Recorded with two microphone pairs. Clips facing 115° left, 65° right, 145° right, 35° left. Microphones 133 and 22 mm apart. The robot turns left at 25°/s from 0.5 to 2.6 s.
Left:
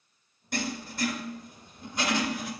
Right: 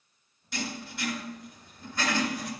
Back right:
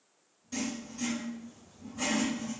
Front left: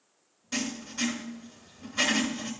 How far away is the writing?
About 2.5 m.